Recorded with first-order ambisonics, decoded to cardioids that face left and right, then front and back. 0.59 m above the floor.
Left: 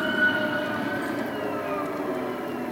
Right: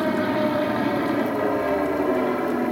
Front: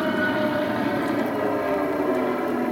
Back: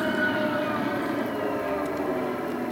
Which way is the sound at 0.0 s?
65° right.